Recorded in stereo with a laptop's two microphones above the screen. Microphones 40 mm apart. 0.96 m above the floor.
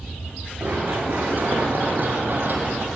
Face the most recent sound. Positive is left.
turn(degrees=-50)  # may be behind; listen again after turning